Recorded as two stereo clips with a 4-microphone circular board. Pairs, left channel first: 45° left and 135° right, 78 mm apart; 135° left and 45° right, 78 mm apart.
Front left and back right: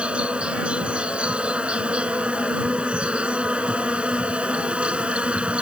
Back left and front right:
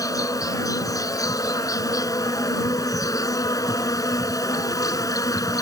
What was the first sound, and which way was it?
An insect, 155° left.